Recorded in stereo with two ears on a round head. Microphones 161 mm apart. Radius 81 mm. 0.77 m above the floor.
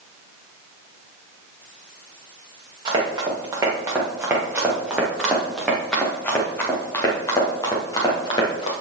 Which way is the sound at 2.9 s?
25° right (ahead or behind).